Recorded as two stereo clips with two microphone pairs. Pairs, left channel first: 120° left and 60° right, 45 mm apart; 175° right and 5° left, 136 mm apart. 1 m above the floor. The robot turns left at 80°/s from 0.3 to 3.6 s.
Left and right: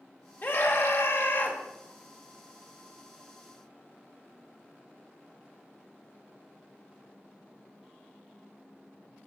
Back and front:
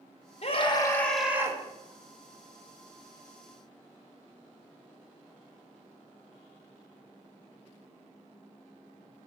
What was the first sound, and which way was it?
A scream, 155° left.